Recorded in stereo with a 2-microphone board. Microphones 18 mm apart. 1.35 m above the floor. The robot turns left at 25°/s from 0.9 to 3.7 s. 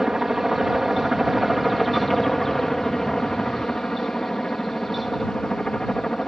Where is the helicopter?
160° right; by 6.3 s 130° left.